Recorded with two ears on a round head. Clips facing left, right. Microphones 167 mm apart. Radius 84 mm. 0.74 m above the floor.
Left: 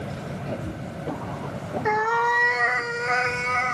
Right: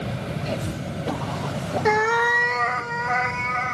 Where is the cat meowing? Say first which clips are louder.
Right 2 dB; 40° right (ahead or behind), 0.6 m; by 3.8 s 40° left (ahead or behind), 1.5 m.